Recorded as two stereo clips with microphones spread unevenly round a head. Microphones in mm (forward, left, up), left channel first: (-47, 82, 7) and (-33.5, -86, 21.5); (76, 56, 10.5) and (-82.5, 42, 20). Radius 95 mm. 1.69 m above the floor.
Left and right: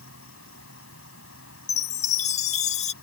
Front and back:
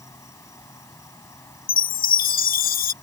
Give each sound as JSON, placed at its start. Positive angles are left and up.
{"t": 0.0, "sound": "an insect", "azimuth_deg": 75}
{"t": 1.7, "sound": "a chime", "azimuth_deg": 35}